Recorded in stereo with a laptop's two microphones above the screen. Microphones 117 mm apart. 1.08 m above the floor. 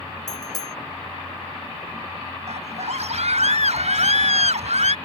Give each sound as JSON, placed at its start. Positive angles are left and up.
{"t": 0.3, "sound": "a bicycle bell", "side_deg": 35}
{"t": 2.5, "sound": "a scream", "side_deg": -75}